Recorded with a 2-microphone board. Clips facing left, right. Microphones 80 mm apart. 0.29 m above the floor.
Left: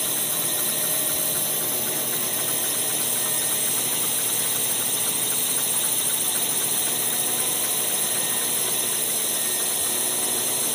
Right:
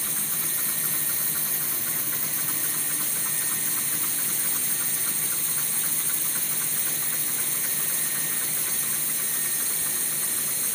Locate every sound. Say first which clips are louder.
0.0 s a drone: left 6 dB; 65° left (ahead or behind)